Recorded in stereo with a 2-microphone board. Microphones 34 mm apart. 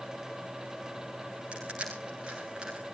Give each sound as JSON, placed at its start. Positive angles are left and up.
{"t": 1.5, "sound": "crushing", "side_deg": -25, "distance_m": 6.0}